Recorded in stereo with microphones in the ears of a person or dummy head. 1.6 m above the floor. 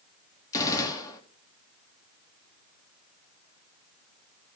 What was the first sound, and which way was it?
A gunshot, 20° left (ahead or behind).